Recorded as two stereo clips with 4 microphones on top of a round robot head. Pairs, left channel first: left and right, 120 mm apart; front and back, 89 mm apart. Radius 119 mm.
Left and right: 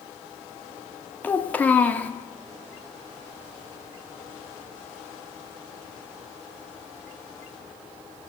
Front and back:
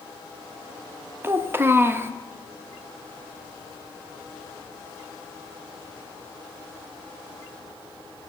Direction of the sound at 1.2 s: 155° left.